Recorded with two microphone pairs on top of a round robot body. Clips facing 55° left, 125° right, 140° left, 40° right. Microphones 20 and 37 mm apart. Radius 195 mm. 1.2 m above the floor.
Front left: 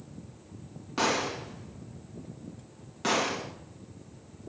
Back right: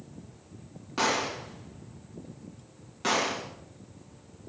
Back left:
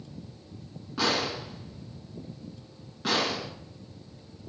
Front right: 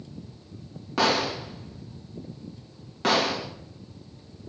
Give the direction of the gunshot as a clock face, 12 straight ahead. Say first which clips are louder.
Even, front right 4 dB; 1 o'clock.